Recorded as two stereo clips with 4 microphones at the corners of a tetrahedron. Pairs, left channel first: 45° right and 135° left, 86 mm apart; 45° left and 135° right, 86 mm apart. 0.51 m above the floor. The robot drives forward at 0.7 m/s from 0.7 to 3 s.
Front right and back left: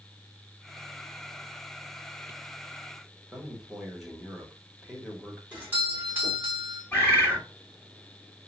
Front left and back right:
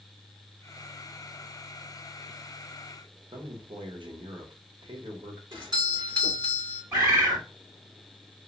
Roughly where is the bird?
Right.